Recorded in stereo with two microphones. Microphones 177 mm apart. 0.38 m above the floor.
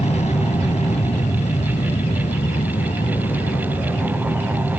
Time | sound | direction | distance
0.0 | an aircraft | 35° left (ahead or behind) | ?